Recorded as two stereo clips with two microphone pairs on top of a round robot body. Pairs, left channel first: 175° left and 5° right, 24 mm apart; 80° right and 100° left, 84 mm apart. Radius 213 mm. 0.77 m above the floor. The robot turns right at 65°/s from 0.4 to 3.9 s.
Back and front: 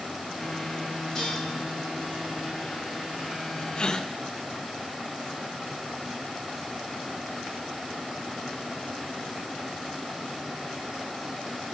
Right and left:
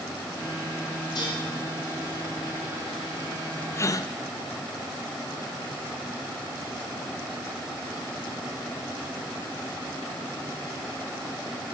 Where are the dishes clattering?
115° right, 7 m; by 1.4 s 100° right, 7 m.